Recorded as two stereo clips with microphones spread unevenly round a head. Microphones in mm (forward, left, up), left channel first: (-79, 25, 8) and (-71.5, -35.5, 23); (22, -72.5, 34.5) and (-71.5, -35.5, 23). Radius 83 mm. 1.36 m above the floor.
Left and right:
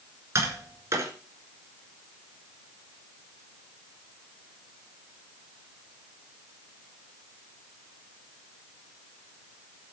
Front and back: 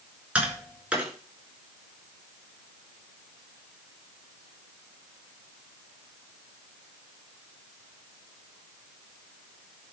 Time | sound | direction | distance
0.3 | tapping | 120° right | 5 m